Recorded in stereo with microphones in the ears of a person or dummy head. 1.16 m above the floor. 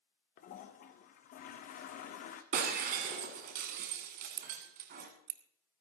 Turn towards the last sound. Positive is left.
turn(degrees=-60)  # may be behind; listen again after turning